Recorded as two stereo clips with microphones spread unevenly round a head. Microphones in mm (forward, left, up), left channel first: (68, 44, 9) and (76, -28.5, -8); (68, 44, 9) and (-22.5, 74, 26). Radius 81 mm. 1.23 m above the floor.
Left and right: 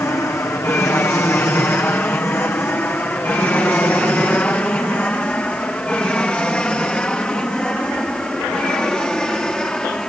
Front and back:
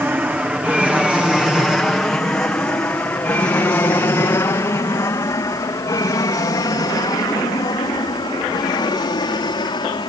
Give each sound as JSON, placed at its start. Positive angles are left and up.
{"t": 0.0, "sound": "an aircraft", "azimuth_deg": 100}